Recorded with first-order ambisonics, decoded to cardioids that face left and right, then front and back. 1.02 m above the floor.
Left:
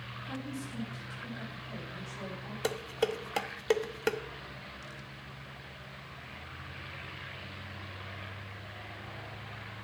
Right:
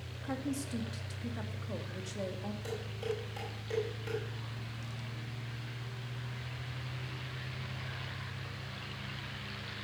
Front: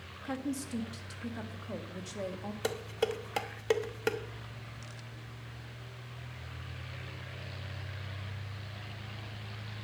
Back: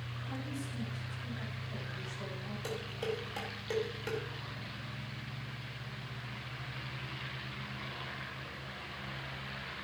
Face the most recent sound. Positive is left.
turn(degrees=55)